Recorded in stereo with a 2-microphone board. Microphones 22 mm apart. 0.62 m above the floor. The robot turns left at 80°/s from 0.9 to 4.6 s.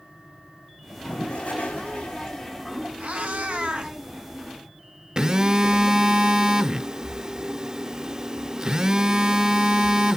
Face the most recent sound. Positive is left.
turn(degrees=-25)  # may be behind; listen again after turning